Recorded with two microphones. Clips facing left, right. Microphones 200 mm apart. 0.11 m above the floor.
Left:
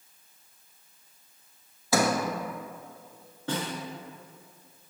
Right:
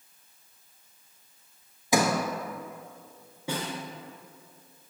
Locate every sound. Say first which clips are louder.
1.9 s a sliding door: even; 15° right (ahead or behind), 0.8 m
3.5 s a snare drum: left 1 dB; 10° right (ahead or behind), 1.5 m